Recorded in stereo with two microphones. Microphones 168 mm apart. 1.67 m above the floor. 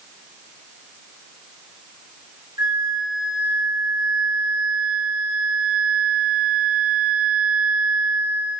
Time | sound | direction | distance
2.6 | a flute | 25° right (ahead or behind) | 1.2 m